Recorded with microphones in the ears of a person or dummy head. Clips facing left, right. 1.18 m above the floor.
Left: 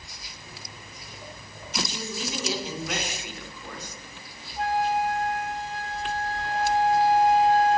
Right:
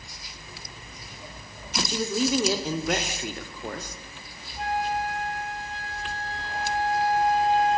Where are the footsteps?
30° left (ahead or behind), 3 m.